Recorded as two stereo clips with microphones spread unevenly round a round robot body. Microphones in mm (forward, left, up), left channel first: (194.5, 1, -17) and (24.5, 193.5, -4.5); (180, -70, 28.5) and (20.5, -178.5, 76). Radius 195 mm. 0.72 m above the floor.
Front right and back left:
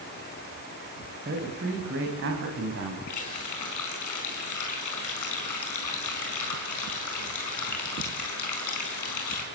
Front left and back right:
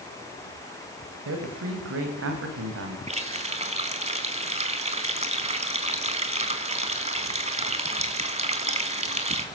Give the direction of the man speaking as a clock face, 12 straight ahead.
5 o'clock.